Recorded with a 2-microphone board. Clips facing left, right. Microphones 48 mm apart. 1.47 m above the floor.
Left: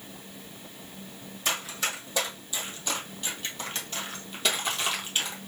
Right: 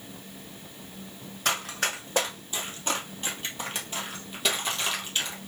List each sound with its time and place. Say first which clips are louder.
1.4 s running footsteps: right 2 dB; 50° right (ahead or behind), 2.5 m; by 5.5 s 20° left (ahead or behind), 1.9 m